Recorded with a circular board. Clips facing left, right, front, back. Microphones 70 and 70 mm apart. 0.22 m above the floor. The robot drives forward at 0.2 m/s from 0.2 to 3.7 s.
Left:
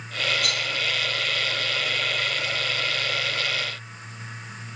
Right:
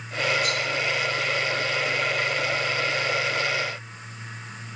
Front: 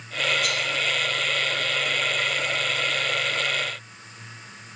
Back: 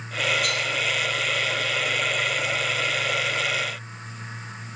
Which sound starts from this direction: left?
A rattle, at 0.4 s.